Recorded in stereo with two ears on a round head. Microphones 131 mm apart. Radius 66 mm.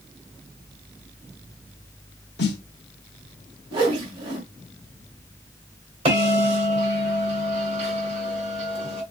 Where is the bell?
40° right (ahead or behind), 2.5 m.